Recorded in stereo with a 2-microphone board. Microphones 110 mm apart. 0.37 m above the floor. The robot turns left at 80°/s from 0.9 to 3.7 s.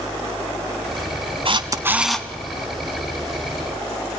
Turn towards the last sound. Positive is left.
turn(degrees=55)